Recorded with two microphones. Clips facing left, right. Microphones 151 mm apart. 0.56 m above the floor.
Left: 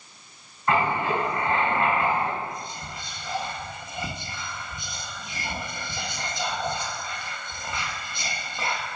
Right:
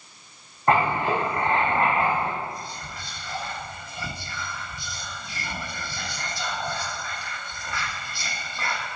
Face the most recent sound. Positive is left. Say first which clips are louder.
# even
turn(degrees=20)  # may be behind; listen again after turning